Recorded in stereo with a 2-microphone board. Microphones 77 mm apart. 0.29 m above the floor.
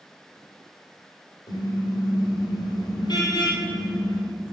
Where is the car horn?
70° left (ahead or behind), 5 m.